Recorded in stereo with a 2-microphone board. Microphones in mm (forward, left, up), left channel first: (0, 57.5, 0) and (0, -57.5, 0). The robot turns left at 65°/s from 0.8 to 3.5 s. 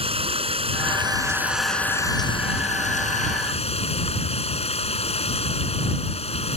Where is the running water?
125° right; by 6.6 s 60° left.